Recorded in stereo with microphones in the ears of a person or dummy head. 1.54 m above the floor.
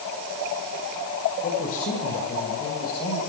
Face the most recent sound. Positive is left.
turn(degrees=50)  # may be behind; listen again after turning